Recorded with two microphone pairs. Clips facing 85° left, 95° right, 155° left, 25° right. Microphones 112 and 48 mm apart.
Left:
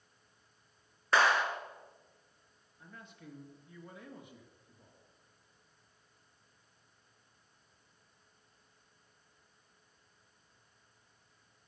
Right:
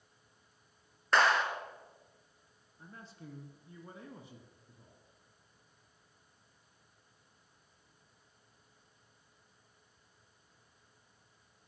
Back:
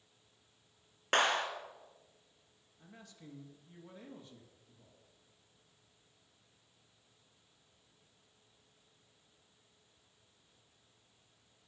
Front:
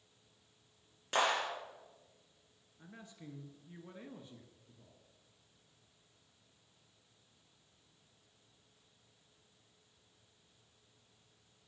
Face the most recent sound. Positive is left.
turn(degrees=-75)